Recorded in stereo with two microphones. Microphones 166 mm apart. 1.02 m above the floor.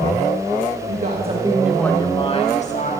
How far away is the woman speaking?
About 1.5 m.